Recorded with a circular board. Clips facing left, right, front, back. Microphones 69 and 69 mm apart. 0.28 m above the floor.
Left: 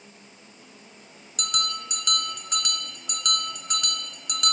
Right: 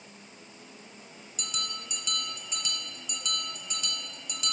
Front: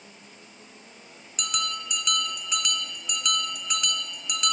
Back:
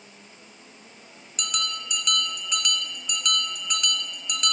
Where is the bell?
90° left, 1.7 m.